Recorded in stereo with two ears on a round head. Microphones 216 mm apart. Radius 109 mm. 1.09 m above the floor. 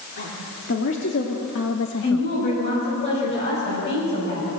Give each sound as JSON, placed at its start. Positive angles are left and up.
{"t": 0.2, "sound": "a woman speaking", "side_deg": 45, "distance_m": 3.0}
{"t": 2.0, "sound": "a woman speaking", "side_deg": 50, "distance_m": 8.0}